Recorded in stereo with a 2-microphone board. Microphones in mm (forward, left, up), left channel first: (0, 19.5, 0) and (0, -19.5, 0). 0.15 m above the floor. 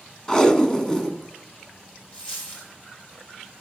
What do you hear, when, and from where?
0.3 s tape being pulled: 15° left (ahead or behind), 1.2 m
2.1 s a dropped coin: 30° left (ahead or behind), 4.5 m